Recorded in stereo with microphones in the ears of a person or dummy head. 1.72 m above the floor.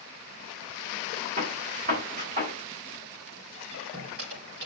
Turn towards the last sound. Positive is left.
turn(degrees=-55)  # may be behind; listen again after turning